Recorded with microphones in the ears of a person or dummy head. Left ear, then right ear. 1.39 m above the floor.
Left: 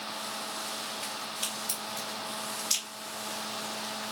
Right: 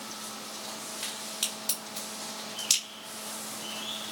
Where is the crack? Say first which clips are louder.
Even; 50° right (ahead or behind), 2 m.